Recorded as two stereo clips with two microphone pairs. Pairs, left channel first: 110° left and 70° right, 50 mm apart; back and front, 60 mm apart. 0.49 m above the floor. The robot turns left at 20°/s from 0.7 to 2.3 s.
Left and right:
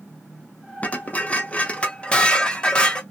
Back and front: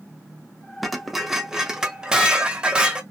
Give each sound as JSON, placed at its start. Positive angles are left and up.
{"t": 0.8, "sound": "dishes clattering", "azimuth_deg": 85, "distance_m": 0.5}